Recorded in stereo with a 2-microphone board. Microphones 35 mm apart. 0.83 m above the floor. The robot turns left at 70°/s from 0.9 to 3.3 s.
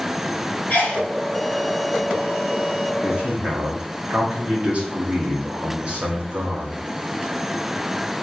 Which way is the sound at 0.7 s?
60° left (ahead or behind).